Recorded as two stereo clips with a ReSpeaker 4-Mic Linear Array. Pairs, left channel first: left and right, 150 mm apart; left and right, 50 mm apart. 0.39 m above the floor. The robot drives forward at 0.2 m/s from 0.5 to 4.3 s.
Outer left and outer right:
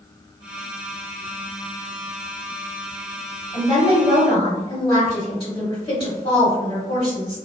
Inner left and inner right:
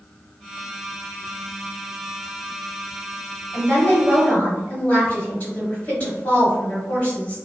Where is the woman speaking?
35° left (ahead or behind), 1.9 m.